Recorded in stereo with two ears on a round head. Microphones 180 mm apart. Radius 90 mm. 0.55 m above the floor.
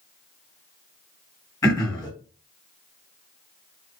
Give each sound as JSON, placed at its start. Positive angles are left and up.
{"t": 1.6, "sound": "throat clearing", "side_deg": 20, "distance_m": 1.9}